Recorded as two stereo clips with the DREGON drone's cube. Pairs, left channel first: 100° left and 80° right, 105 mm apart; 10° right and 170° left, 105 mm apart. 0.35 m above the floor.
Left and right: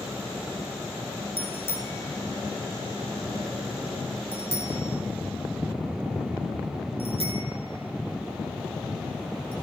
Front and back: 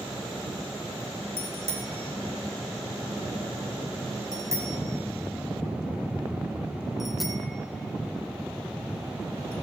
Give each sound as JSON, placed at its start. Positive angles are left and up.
{"t": 1.4, "sound": "a bicycle bell", "azimuth_deg": 170, "distance_m": 2.0}